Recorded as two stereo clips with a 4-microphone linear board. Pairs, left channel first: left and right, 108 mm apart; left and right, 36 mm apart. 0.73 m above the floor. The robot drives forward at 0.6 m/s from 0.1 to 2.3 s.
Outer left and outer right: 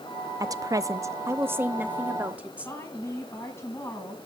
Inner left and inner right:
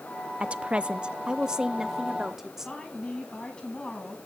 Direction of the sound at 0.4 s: 30° right (ahead or behind).